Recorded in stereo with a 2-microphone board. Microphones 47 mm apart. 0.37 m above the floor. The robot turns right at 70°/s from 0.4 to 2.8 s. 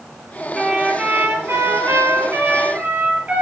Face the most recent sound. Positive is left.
turn(degrees=-30)